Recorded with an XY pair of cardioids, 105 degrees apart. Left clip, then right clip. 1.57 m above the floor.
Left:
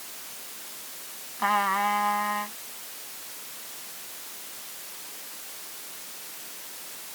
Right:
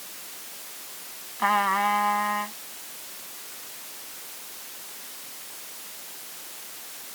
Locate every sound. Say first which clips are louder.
1.4 s a trumpet: right 2 dB; 10° right